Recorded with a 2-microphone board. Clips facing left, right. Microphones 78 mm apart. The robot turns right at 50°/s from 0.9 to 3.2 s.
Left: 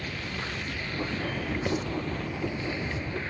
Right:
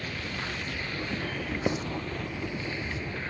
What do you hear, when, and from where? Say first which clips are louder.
1.7 s writing: right 1 dB; 20° right (ahead or behind), 0.6 m; by 1.8 s 15° right (ahead or behind), 0.6 m